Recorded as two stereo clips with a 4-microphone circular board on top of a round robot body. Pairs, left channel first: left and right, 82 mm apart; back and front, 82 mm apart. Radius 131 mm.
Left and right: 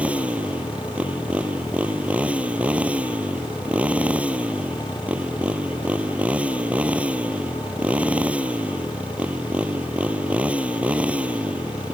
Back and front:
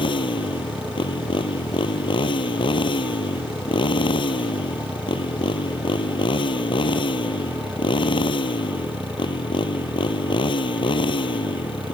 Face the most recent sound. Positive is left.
turn(degrees=-165)